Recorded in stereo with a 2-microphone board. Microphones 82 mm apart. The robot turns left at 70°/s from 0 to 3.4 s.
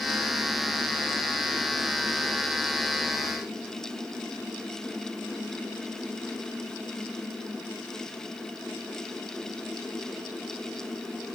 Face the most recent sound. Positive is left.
No sound to turn to.